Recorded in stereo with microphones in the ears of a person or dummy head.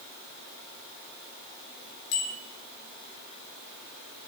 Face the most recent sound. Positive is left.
turn(degrees=75)  # may be behind; listen again after turning